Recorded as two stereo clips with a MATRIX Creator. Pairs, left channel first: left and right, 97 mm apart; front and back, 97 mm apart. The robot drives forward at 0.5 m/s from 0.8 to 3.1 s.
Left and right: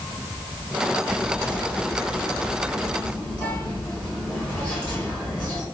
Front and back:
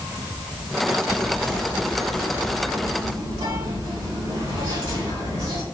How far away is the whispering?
About 1.3 m.